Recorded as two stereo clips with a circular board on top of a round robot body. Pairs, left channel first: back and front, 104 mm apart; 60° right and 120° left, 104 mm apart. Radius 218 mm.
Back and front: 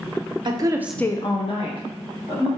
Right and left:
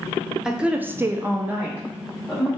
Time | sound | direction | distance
0.5 | a woman speaking | 40° left | 0.6 m